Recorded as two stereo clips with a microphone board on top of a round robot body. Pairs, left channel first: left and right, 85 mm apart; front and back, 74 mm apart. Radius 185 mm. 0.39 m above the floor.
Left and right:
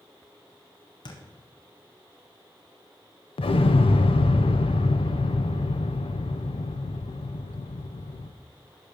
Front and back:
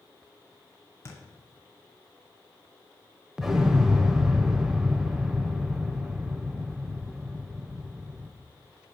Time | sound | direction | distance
1.1 | a thud | 55° left | 1.6 m
3.4 | an explosion | 95° left | 0.5 m